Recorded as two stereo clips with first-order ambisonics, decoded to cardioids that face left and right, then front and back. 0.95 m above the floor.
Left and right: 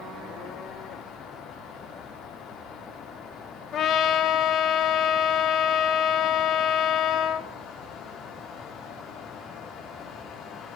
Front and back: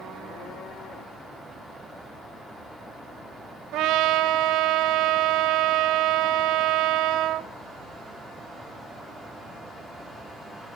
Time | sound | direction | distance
3.7 | a trumpet | 140° left | 1.2 m